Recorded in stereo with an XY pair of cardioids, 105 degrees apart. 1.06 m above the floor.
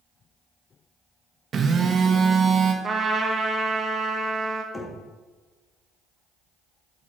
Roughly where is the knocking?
Ahead.